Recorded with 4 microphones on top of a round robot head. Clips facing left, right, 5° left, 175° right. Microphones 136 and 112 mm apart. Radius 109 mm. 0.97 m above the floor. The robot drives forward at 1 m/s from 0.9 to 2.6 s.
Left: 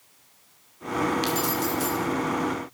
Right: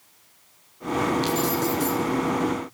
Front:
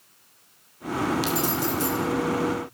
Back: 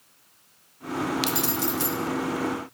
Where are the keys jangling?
170° left, 2 m.